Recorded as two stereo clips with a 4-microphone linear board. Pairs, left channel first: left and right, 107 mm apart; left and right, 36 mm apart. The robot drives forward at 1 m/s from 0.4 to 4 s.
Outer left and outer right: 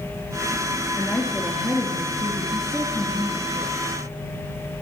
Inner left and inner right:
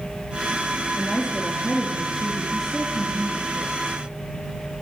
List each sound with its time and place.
1.0 s a woman speaking: 10° left (ahead or behind), 2.5 m; by 3.8 s 5° left (ahead or behind), 5 m